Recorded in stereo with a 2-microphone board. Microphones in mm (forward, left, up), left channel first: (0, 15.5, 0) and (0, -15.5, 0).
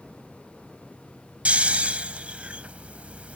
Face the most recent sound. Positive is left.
turn(degrees=-50)  # may be behind; listen again after turning